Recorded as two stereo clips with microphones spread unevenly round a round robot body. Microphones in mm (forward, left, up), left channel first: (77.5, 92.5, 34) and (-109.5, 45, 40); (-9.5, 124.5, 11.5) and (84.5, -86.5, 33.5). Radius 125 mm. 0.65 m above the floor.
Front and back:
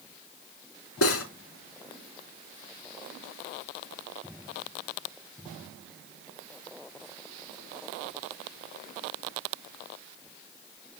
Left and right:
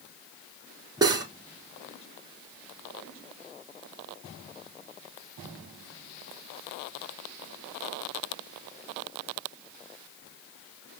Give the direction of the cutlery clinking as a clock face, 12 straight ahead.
12 o'clock.